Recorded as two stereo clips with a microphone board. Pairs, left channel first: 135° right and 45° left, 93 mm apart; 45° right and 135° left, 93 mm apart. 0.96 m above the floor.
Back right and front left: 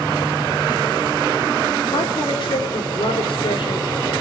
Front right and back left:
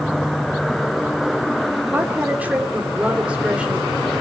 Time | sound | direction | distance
1.9 | a woman speaking | 155° right | 2.5 m